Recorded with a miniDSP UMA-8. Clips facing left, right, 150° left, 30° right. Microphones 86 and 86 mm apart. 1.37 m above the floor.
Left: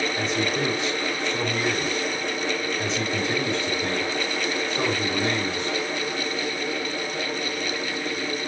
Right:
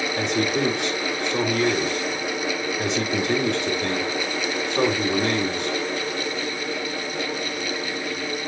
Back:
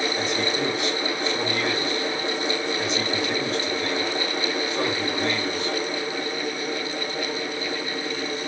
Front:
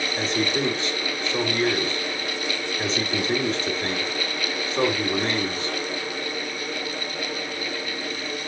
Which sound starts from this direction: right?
A man speaking, at 0.2 s.